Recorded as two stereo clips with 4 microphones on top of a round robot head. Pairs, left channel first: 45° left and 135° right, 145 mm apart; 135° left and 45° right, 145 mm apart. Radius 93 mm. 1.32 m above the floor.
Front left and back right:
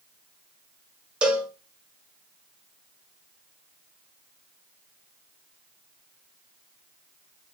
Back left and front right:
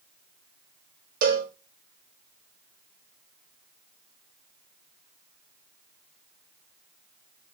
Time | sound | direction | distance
1.2 | a cowbell | 55° right | 0.6 m